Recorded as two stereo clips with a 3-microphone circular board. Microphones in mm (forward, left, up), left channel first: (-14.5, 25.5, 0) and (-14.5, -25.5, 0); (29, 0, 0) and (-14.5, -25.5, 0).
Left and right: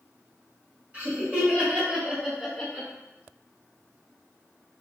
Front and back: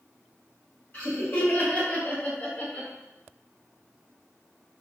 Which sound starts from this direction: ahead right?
Laughter, at 0.9 s.